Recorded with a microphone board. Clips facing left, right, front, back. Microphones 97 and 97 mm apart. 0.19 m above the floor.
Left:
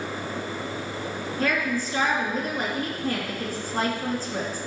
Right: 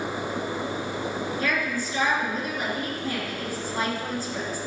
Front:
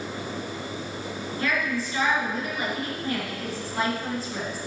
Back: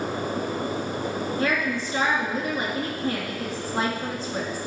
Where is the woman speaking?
125° left, 2.5 m.